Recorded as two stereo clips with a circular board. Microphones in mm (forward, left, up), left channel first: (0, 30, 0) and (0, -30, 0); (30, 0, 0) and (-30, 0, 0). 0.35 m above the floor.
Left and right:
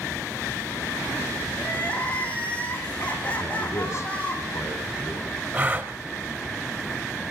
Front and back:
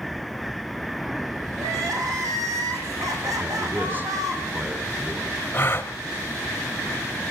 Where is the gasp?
40° right, 1.1 m.